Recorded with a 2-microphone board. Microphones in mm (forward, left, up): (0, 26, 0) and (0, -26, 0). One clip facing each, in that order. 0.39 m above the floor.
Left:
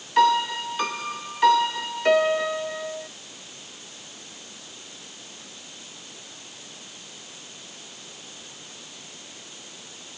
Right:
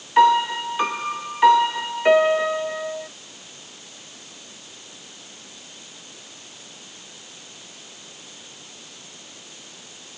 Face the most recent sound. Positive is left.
turn(degrees=-20)  # may be behind; listen again after turning